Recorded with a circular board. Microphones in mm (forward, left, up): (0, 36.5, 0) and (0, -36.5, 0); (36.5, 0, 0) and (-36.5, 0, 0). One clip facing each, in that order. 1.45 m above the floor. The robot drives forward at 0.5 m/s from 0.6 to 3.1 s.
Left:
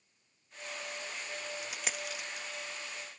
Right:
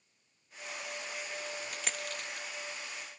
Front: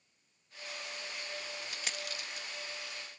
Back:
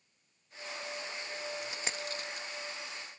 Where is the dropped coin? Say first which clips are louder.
Even, back 3 dB; 165° left; by 2.5 s 175° left.